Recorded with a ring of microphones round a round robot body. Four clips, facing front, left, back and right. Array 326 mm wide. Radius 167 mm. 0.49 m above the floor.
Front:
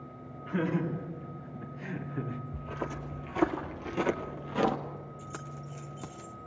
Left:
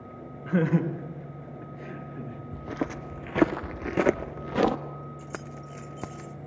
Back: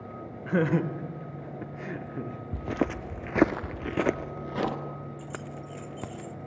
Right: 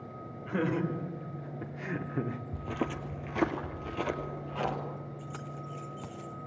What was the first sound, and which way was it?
Laughter, 155° left.